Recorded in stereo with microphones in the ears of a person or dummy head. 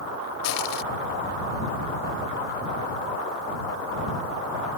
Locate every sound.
0.4 s crushing: 80° left